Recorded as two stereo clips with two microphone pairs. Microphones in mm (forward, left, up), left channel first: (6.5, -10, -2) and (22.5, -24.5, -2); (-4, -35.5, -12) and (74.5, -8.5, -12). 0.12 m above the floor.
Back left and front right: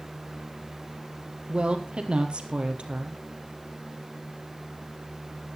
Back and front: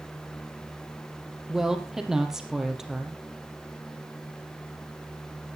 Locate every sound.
1.5 s a woman speaking: 65° right, 3 m